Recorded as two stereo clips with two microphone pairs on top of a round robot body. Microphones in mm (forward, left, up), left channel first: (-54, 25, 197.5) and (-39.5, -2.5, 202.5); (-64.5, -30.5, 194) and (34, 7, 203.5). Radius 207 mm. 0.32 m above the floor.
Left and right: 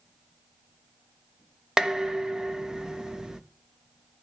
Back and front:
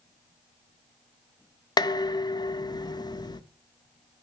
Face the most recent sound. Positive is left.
turn(degrees=-140)